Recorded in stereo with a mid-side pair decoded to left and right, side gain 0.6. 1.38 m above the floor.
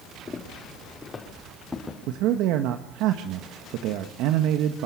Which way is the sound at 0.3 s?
25° left.